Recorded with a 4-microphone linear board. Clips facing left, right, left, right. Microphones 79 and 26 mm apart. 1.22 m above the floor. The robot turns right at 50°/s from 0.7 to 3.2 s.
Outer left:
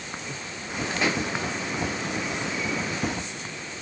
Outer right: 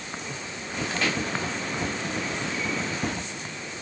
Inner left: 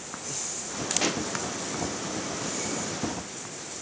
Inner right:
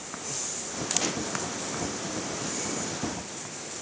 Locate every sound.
1.0 s a pop: 20° left (ahead or behind), 0.9 m; by 1.3 s 30° left (ahead or behind), 0.9 m